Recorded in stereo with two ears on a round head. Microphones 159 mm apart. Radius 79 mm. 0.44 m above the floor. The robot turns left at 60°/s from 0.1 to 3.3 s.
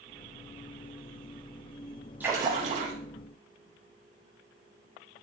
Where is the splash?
10° right, 4 m; by 2.9 s 55° right, 4 m.